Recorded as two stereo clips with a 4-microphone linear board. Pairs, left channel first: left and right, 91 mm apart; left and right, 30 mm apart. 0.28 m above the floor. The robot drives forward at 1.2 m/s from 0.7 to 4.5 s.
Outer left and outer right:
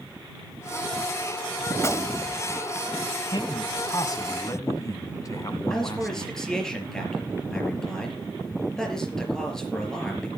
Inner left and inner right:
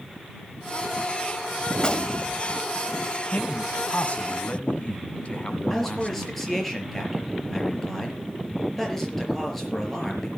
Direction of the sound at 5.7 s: 5° left (ahead or behind).